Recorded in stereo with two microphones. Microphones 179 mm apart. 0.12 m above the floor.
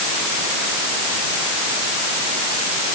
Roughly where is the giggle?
No giggle in this recording.